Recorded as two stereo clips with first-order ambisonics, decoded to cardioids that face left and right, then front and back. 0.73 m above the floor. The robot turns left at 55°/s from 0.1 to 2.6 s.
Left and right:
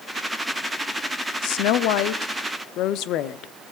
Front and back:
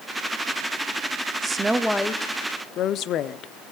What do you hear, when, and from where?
1.4 s a woman speaking: 115° left, 1.0 m; by 3.5 s 50° left, 1.0 m